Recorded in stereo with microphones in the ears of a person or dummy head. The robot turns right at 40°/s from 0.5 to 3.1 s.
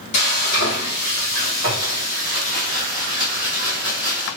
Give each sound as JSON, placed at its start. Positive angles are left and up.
{"t": 0.1, "sound": "frying", "azimuth_deg": 80, "distance_m": 2.5}